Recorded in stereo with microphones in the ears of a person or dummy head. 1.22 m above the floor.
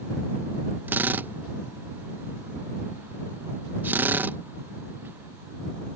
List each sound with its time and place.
0.9 s a drill: 10° right (ahead or behind)